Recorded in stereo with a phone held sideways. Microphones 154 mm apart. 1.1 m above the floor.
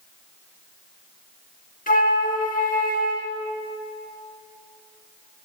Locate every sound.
1.9 s a flute: 60° left (ahead or behind), 1.5 m